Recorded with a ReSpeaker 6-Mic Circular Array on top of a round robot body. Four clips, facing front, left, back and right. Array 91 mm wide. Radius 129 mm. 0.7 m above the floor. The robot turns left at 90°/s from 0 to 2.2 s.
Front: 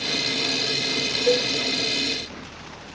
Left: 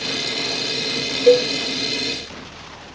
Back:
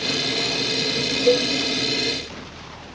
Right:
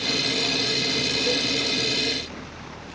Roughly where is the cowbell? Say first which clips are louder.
Left 17 dB, back 3 dB; left.